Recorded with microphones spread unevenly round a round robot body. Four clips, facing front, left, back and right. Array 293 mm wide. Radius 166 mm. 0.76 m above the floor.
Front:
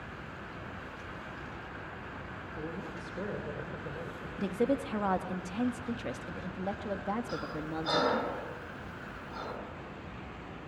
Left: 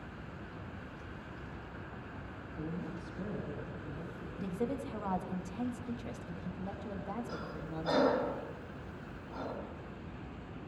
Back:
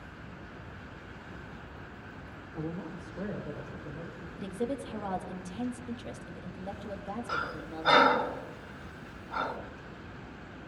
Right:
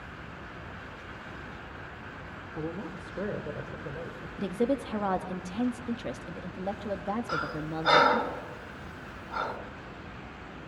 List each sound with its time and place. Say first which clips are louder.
2.5 s a woman speaking: right 5 dB, back 3 dB; 90° right, 2 m; by 4.3 s 70° right, 3 m
4.4 s a woman speaking: right 8 dB, front 5 dB; 65° right, 1.7 m
7.3 s breathing: right 9 dB, back 1 dB; 120° right, 3.5 m